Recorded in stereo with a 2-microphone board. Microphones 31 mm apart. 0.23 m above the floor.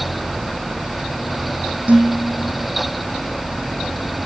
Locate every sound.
1.9 s dishes clattering: 50° right (ahead or behind), 5.5 m